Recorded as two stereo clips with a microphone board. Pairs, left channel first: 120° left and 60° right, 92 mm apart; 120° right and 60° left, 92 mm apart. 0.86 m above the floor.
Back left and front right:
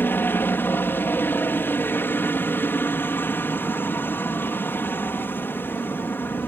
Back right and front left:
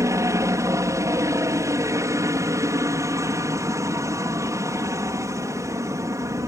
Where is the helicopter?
70° left.